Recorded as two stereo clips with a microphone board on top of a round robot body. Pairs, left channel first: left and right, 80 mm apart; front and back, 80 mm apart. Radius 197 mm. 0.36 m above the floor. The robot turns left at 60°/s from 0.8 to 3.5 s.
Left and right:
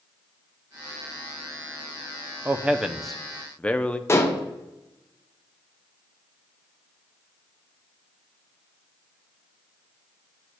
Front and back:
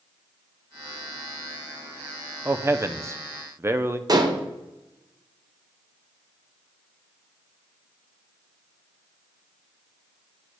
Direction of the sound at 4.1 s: 145° left.